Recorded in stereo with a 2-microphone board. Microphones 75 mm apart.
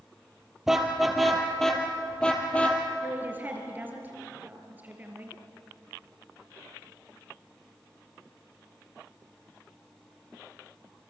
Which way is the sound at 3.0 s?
20° right (ahead or behind).